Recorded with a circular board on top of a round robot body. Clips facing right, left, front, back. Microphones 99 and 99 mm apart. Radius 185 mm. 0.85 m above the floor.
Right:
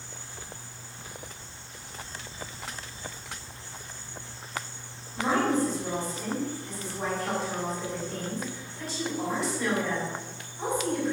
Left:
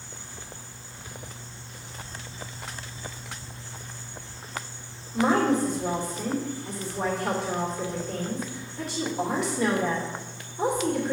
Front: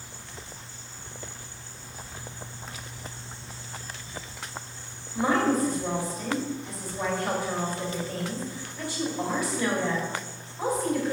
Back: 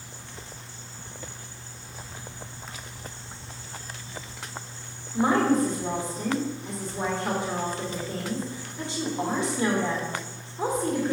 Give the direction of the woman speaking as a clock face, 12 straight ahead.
8 o'clock.